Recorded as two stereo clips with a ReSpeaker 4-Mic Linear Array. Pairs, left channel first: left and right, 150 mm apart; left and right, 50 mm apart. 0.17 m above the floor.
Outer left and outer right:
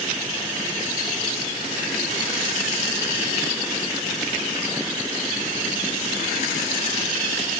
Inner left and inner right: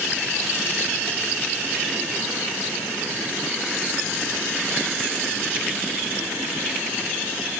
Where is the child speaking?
I don't hear a child speaking.